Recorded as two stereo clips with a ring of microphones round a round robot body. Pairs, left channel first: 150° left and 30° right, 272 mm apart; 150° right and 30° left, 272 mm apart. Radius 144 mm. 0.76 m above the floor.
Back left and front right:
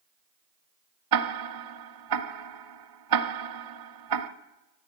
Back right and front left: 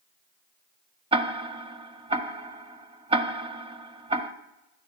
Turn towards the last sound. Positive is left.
turn(degrees=-40)